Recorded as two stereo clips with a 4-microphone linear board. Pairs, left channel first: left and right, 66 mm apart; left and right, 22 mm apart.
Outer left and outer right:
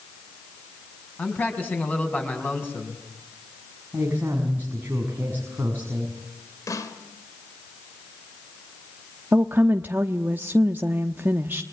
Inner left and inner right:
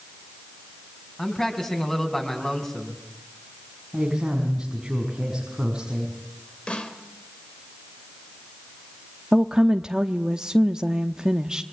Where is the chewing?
No chewing in this recording.